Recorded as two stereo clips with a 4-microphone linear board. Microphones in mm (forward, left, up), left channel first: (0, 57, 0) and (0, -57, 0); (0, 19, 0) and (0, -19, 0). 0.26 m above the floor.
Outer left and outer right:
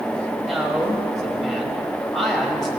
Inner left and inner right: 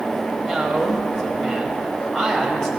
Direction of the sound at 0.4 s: Centre (ahead or behind).